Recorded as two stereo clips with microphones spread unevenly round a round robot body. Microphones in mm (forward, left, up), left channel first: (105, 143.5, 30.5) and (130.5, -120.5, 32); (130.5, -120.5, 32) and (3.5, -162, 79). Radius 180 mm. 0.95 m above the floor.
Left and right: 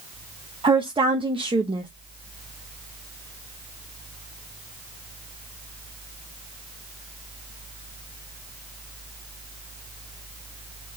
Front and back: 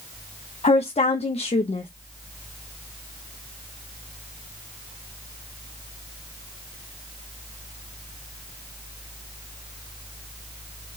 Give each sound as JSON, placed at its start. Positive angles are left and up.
{"t": 0.6, "sound": "a woman speaking", "azimuth_deg": -10, "distance_m": 0.9}